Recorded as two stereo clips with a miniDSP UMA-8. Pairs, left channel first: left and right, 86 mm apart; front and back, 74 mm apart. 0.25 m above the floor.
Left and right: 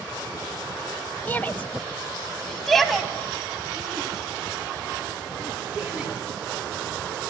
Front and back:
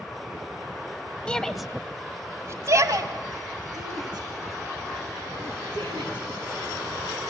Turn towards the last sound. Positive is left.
turn(degrees=-170)